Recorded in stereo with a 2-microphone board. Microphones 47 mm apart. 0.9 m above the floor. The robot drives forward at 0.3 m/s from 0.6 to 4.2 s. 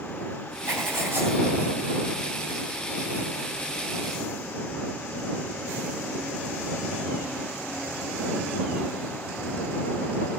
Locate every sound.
0.7 s writing: 50° right (ahead or behind), 7.5 m